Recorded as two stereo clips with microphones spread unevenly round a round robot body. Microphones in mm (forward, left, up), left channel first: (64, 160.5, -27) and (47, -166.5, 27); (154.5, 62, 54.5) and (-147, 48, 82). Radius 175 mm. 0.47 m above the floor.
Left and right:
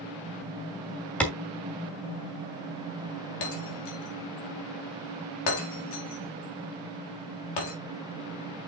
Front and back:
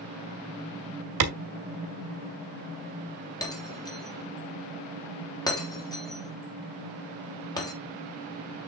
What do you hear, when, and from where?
1.2 s a clap: 170° left, 2 m
3.4 s breaking glass: 80° left, 4 m